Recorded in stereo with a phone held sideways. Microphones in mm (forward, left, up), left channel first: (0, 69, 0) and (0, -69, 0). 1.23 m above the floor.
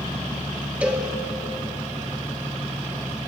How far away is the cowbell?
About 1.3 m.